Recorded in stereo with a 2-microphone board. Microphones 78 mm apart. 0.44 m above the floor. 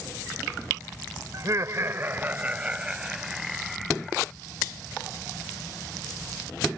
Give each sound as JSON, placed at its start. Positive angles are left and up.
{"t": 1.3, "sound": "laughter", "side_deg": -50}